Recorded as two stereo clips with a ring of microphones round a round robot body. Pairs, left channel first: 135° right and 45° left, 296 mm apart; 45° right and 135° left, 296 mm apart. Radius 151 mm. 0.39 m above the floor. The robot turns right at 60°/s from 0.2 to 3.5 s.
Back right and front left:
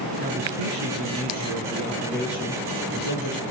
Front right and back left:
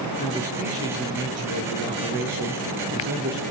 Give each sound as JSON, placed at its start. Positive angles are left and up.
{"t": 0.2, "sound": "a man speaking", "azimuth_deg": 20, "distance_m": 6.0}